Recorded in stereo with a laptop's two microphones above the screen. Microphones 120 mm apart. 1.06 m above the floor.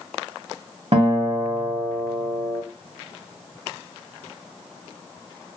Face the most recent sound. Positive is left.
turn(degrees=-60)  # may be behind; listen again after turning